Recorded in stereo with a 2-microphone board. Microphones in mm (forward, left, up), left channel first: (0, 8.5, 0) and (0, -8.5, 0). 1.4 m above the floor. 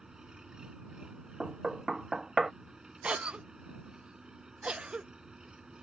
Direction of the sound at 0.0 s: 45° right (ahead or behind).